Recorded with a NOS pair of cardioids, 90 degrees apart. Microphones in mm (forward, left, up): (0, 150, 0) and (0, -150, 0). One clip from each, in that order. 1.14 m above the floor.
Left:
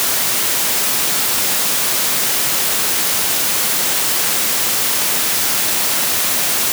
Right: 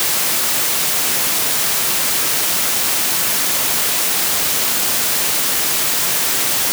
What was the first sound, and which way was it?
Only background noise.